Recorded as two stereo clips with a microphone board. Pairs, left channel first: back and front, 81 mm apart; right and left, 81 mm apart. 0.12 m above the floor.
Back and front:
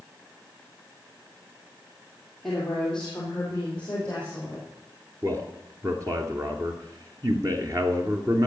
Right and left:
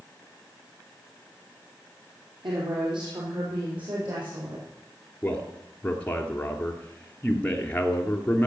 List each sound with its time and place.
2.4 s a woman speaking: 95° left, 3.5 m; by 4.6 s 110° left, 6.5 m
5.2 s a man speaking: 25° right, 2 m